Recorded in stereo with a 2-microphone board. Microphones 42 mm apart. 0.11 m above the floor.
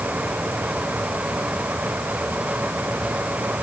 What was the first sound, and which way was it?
Only background noise.